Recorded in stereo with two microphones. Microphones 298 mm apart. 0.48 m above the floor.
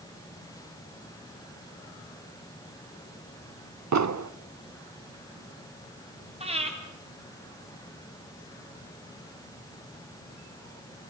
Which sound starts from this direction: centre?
Breathing, at 6.4 s.